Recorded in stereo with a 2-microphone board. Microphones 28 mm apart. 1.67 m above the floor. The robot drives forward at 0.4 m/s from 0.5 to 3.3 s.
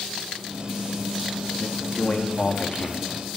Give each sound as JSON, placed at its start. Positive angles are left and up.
{"t": 1.6, "sound": "a man speaking", "side_deg": 40, "distance_m": 3.5}